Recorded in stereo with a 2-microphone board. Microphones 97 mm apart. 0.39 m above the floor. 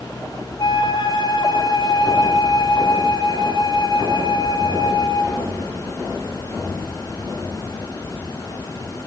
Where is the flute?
55° left (ahead or behind), 2.5 m.